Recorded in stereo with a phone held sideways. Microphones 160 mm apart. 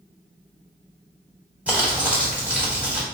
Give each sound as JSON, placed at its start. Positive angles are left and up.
{"t": 1.7, "sound": "crumpling", "side_deg": -10, "distance_m": 1.5}